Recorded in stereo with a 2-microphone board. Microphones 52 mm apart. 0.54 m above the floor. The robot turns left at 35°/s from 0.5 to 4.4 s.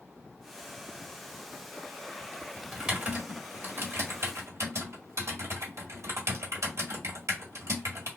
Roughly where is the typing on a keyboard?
Centre.